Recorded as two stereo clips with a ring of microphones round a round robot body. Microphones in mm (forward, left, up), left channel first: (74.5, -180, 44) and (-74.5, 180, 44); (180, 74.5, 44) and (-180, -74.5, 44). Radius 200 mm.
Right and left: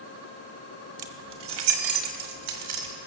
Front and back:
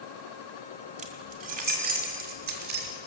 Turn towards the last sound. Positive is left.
turn(degrees=135)